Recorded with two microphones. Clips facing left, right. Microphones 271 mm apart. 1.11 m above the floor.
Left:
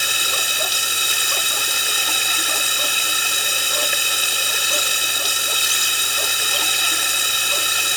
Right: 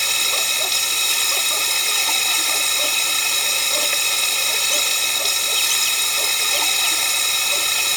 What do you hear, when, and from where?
0.0 s running water: 10° left (ahead or behind)